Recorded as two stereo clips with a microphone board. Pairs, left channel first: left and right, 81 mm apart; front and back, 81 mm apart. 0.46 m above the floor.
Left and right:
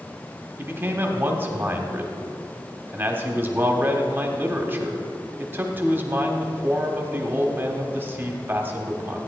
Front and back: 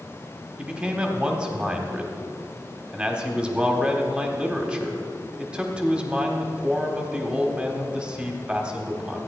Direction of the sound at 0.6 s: 115° right.